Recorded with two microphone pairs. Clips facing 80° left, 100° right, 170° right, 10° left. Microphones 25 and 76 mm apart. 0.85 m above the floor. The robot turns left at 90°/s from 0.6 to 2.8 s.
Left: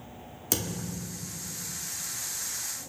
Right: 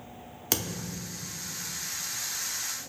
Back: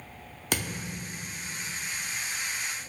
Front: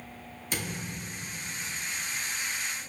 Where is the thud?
160° right, 0.7 m; by 1.3 s 140° left, 0.7 m.